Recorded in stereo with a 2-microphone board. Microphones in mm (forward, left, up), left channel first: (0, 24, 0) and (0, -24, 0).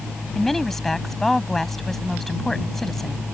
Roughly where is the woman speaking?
Centre.